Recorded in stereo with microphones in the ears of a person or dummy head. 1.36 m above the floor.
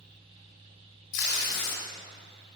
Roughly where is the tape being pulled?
Left.